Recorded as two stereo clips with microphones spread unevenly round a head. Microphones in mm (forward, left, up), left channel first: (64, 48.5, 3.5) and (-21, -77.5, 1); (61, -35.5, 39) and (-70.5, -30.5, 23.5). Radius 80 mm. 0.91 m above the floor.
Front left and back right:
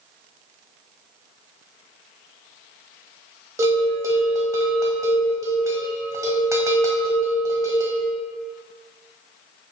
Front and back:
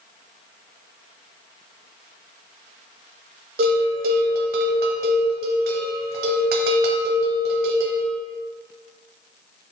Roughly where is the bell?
Behind.